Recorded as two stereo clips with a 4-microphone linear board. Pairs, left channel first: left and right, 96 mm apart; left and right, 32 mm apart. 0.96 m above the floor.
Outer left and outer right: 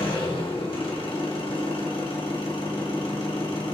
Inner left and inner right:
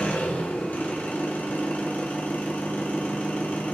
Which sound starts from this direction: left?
An engine running, at 0.0 s.